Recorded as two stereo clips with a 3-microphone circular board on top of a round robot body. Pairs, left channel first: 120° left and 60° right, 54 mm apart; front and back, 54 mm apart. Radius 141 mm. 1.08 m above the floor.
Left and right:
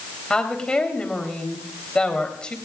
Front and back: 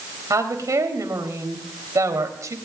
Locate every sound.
0.3 s a woman speaking: 165° right, 3.5 m